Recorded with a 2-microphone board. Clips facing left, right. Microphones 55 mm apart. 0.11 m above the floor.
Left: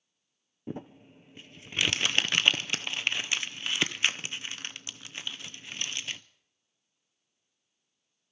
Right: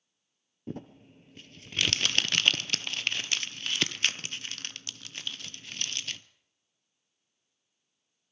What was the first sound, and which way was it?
Crumpling, 20° left (ahead or behind).